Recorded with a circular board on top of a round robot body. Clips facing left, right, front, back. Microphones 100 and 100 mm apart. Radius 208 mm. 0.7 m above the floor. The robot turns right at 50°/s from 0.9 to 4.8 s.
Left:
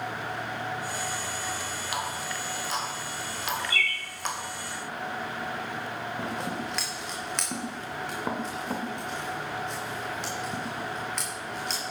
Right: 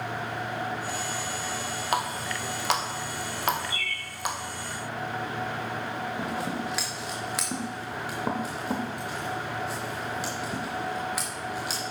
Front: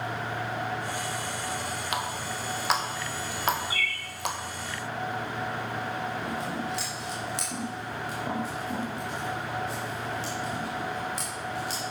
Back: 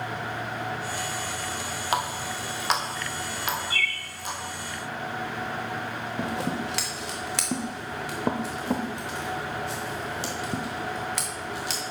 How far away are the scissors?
About 0.6 m.